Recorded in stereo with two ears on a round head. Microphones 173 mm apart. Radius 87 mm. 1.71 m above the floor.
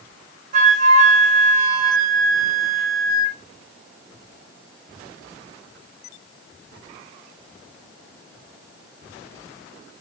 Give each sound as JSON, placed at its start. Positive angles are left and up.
{"t": 0.5, "sound": "a flute", "side_deg": -45, "distance_m": 3.0}